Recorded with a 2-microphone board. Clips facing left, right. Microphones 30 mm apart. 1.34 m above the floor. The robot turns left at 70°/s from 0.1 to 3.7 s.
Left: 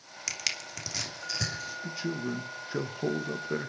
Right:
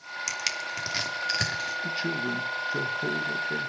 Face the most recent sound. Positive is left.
turn(degrees=95)